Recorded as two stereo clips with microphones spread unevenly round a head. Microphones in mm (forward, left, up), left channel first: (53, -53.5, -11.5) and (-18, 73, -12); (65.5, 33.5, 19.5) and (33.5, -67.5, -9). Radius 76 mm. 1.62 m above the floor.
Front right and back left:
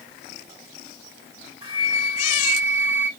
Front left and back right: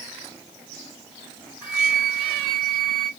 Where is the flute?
175° left, 2.5 m.